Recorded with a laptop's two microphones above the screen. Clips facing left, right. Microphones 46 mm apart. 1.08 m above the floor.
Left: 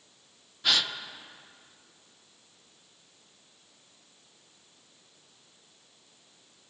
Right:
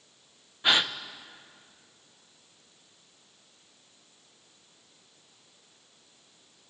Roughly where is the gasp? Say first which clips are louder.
Right 3 dB; right.